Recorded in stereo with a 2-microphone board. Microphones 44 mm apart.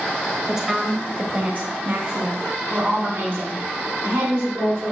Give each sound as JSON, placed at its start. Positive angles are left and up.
{"t": 0.5, "sound": "a woman speaking", "side_deg": -10, "distance_m": 1.3}